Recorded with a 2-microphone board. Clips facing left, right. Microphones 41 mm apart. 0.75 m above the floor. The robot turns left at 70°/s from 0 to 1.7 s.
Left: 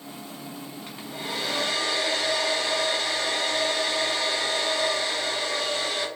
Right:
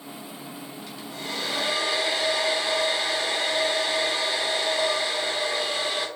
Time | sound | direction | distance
0.9 | a hair dryer | 40° left | 0.6 m